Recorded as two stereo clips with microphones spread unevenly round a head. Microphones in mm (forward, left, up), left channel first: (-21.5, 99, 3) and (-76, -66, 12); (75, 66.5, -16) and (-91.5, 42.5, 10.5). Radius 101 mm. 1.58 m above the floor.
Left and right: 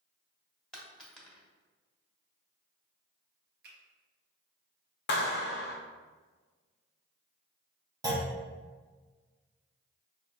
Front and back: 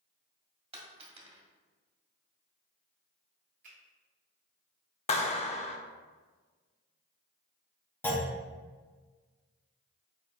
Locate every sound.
0.7 s a dropped coin: 160° left, 1.4 m
3.6 s a finger snap: 130° right, 1.2 m
5.1 s a clap: 60° left, 0.5 m
8.0 s a clunk: 80° right, 0.8 m